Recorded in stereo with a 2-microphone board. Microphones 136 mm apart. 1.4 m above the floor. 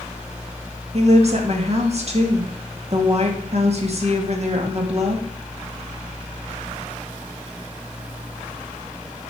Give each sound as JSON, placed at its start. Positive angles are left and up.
{"t": 0.9, "sound": "a woman speaking", "side_deg": -50, "distance_m": 1.7}